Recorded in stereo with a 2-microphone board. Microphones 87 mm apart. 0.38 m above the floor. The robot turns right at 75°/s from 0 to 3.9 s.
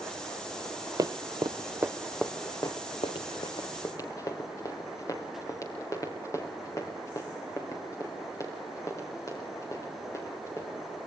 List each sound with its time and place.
1.0 s running footsteps: 45° right (ahead or behind), 0.6 m; by 10.8 s 35° left (ahead or behind), 7 m